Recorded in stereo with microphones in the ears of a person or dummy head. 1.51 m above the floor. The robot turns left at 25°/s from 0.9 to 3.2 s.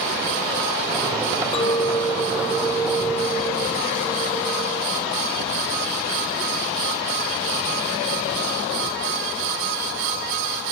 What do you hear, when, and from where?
1.5 s a clink: 40° left, 0.5 m; by 4.8 s straight ahead, 0.5 m